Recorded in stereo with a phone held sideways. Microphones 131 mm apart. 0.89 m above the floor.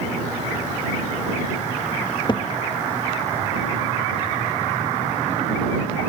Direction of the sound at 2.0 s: 35° left (ahead or behind).